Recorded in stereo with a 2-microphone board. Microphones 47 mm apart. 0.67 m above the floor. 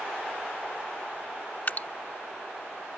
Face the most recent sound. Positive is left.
turn(degrees=45)  # may be behind; listen again after turning